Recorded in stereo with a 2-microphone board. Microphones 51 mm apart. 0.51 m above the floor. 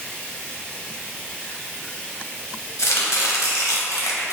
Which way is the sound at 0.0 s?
25° left (ahead or behind).